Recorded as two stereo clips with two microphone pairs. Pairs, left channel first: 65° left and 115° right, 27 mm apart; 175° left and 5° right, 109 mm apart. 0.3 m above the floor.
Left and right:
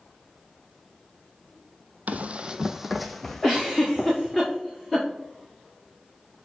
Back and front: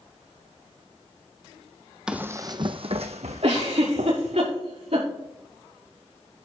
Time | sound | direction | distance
2.1 | running footsteps | 90° right | 0.7 m
3.4 | a giggle | 30° right | 5.5 m